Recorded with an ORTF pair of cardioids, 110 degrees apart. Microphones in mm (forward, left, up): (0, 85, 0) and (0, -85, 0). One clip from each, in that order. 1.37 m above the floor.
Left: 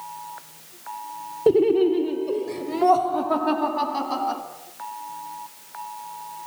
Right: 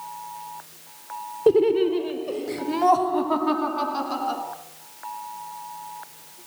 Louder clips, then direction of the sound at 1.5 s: Left 1 dB; 10° left.